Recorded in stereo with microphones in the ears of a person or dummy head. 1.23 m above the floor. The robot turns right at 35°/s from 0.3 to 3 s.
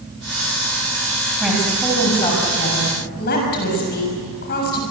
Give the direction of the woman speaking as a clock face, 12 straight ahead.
12 o'clock.